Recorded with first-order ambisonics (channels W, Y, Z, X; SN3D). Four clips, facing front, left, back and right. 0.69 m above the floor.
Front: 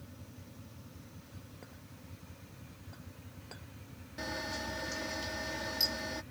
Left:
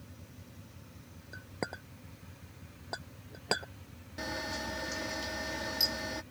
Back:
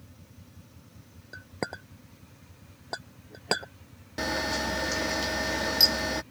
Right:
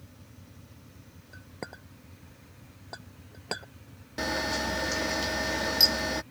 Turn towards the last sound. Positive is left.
turn(degrees=-140)